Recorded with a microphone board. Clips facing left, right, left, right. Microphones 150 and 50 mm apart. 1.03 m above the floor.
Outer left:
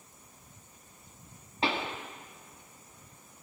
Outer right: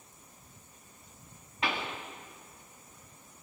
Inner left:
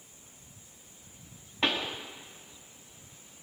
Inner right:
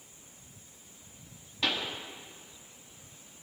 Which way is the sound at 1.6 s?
30° left (ahead or behind).